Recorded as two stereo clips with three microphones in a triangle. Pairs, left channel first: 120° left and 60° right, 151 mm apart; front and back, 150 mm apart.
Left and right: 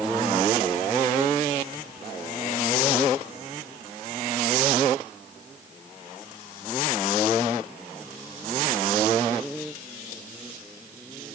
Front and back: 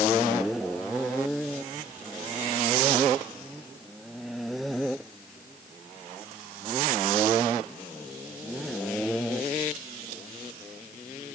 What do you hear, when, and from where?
Only background noise.